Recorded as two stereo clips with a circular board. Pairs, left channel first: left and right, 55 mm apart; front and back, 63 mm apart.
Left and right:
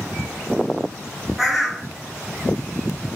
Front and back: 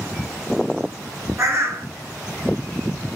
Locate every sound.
1.4 s a bird: straight behind, 0.6 m